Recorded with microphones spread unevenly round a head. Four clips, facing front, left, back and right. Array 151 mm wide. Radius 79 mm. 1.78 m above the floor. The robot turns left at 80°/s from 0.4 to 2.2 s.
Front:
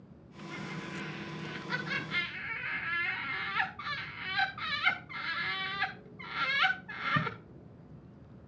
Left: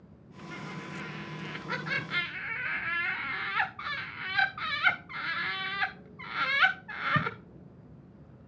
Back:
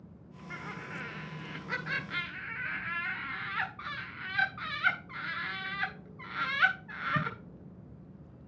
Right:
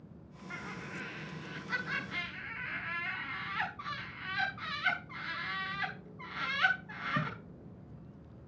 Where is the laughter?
140° right, 1.2 m; by 7.4 s 85° left, 1.2 m.